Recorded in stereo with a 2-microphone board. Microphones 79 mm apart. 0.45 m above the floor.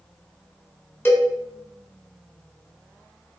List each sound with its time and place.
1.1 s a cowbell: 25° left (ahead or behind), 1.0 m